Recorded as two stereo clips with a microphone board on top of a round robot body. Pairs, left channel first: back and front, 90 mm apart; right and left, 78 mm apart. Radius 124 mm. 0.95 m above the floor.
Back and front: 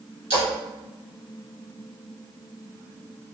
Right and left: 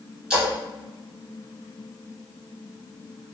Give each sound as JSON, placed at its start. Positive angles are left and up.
{"t": 0.3, "sound": "a splash", "azimuth_deg": 5, "distance_m": 0.9}